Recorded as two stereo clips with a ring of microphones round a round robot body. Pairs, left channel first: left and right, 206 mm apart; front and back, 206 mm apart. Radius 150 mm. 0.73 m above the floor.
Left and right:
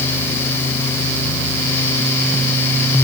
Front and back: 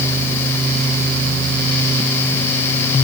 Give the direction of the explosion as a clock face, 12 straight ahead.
No explosion in this recording.